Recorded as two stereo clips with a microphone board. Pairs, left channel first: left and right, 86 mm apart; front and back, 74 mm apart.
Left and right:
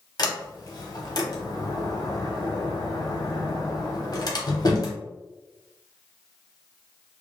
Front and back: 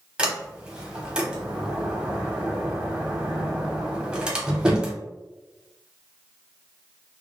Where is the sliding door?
105° left, 0.8 m.